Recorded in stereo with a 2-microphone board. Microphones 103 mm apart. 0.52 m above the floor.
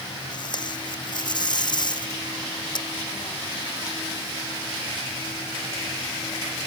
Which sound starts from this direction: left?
Tape being pulled, at 0.3 s.